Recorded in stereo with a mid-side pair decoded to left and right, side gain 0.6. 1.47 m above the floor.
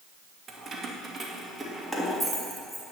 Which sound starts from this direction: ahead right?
Keys jangling, at 0.5 s.